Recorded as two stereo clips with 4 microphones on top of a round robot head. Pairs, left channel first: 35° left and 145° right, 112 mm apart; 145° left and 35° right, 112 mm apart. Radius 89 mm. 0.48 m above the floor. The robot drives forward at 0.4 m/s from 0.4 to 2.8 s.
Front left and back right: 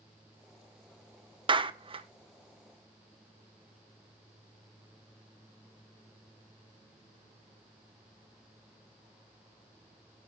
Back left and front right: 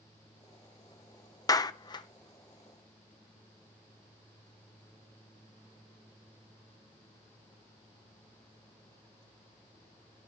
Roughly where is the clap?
Behind.